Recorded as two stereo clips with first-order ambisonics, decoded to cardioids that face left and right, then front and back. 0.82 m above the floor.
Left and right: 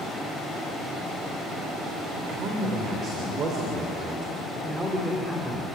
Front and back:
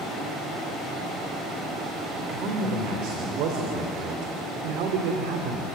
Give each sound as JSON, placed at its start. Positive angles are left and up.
{"t": 2.1, "sound": "a man speaking", "azimuth_deg": -140, "distance_m": 3.0}